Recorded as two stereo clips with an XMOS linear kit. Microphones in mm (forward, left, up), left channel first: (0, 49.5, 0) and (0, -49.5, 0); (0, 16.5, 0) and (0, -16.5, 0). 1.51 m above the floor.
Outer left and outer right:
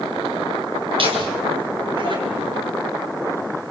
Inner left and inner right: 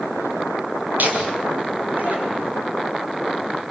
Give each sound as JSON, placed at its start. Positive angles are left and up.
{"t": 1.0, "sound": "laughter", "side_deg": -60, "distance_m": 7.5}